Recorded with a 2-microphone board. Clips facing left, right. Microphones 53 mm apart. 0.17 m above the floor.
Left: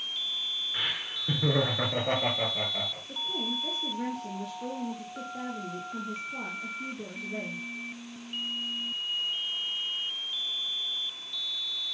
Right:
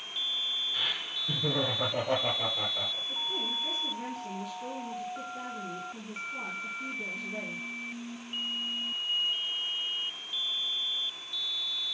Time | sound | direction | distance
0.7 | laughter | 30° left (ahead or behind) | 2.5 m
3.1 | a woman speaking | 30° left (ahead or behind) | 3.5 m